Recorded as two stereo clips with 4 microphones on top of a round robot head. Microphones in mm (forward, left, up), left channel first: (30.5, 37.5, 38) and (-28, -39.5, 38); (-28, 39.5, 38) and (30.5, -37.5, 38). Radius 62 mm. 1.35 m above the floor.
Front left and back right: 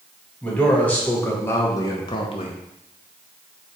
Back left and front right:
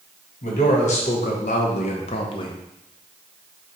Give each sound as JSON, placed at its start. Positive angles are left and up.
{"t": 0.4, "sound": "a man speaking", "azimuth_deg": 130, "distance_m": 1.4}